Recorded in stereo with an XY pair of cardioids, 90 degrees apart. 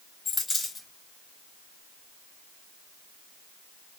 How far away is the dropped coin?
About 2 m.